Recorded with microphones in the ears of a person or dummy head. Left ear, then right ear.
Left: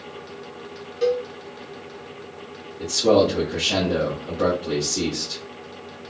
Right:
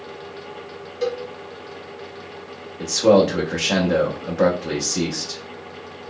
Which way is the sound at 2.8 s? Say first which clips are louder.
Right 2 dB; 45° right (ahead or behind).